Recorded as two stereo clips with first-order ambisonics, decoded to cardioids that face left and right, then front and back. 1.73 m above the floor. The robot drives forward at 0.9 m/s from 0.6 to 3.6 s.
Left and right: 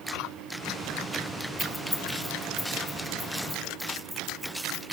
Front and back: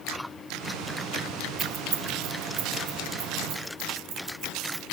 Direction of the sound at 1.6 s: Straight behind.